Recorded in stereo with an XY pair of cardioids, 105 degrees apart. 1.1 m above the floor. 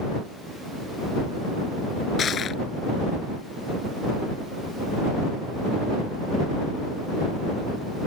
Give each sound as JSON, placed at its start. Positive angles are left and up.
{"t": 2.2, "sound": "crushing", "azimuth_deg": 50}